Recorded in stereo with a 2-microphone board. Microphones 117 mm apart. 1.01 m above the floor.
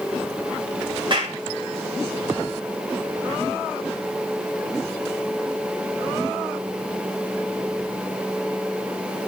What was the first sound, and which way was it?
A clap, 45° right (ahead or behind).